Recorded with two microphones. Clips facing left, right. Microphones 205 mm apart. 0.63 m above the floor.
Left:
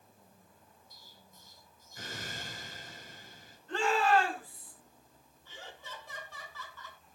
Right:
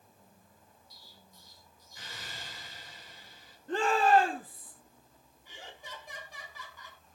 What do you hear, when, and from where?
0.9 s an explosion: 55° left (ahead or behind), 3 m
3.7 s a shout: 55° right (ahead or behind), 4 m
5.5 s laughter: 15° right (ahead or behind), 5.5 m